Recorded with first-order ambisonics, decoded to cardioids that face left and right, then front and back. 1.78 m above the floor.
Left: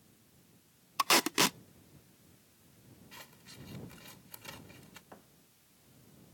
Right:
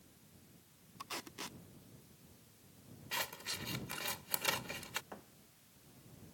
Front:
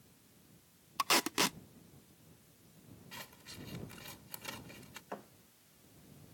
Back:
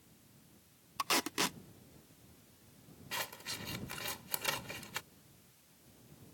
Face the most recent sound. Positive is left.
turn(degrees=-10)